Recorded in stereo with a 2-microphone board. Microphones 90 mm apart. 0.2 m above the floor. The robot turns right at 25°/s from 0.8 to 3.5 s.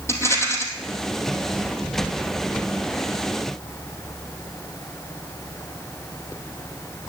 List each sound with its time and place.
0.1 s a rattle: 30° left (ahead or behind), 2.5 m